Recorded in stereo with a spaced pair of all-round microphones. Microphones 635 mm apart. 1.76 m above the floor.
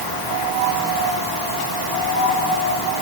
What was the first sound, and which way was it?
Only background noise.